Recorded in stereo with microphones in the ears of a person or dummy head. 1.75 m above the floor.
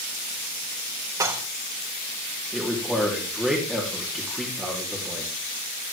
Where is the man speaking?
5° left (ahead or behind), 4 m.